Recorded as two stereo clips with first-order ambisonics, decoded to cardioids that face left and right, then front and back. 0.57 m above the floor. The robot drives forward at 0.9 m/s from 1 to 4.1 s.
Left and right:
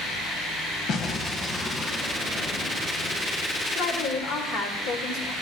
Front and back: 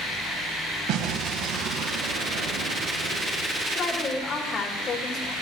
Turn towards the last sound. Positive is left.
turn(degrees=60)